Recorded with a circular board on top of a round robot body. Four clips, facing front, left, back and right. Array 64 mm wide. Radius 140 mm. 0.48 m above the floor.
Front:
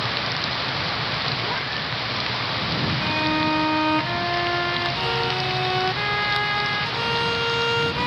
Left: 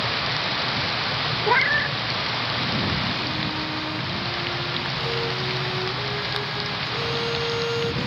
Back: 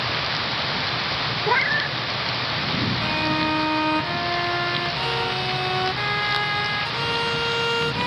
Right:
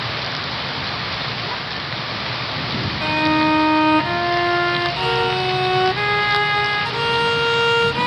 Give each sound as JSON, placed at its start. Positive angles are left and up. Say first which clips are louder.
{"t": 1.5, "sound": "a cat meowing", "louder": "left 7 dB, back 6 dB", "azimuth_deg": 130}
{"t": 3.0, "sound": "a violin", "louder": "right 10 dB, front 2 dB", "azimuth_deg": -85}